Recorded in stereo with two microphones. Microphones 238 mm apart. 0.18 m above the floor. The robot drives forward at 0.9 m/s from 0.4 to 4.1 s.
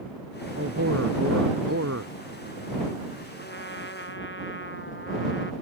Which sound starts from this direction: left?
A trumpet, at 3.4 s.